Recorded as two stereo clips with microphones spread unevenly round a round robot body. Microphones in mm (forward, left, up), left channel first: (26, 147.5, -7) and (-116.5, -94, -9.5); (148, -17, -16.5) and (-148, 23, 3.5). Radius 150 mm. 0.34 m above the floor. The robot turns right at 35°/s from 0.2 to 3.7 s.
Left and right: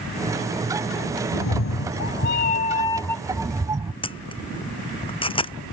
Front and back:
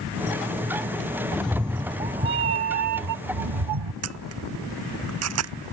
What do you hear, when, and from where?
1.3 s a cat meowing: 80° left; by 3.9 s 160° left
4.0 s a camera shutter: 130° left